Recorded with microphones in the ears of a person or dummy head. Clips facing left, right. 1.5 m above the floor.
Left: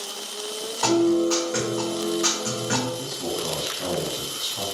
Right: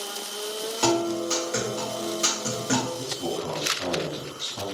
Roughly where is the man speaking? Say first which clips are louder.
Left 1 dB; centre.